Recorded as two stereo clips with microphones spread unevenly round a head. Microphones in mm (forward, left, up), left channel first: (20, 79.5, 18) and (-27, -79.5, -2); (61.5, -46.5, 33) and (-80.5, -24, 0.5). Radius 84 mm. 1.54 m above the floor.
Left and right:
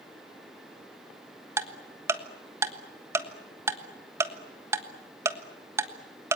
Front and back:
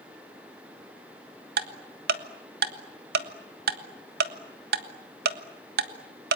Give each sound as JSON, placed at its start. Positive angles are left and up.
{"t": 1.6, "sound": "ticking", "azimuth_deg": 180, "distance_m": 1.3}